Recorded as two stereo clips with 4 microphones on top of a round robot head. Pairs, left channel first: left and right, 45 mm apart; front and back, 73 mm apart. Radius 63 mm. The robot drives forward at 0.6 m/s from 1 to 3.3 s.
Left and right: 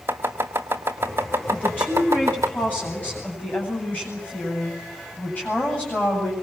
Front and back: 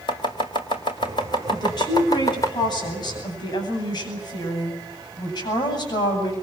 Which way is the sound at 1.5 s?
20° left.